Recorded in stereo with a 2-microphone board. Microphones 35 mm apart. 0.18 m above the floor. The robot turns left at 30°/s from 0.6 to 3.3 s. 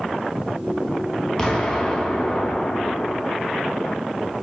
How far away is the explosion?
About 0.5 m.